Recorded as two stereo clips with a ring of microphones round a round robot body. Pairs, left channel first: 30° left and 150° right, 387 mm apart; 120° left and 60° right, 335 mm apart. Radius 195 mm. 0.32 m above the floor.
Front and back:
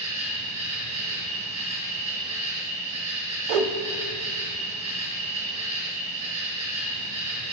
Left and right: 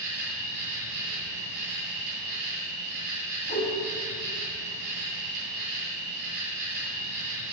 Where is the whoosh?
170° right, 0.5 m.